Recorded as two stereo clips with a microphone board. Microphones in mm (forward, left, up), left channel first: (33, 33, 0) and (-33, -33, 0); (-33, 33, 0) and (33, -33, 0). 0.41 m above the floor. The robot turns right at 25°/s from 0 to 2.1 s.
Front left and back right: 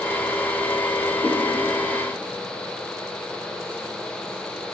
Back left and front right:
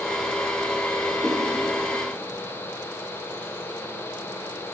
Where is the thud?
I don't hear a thud.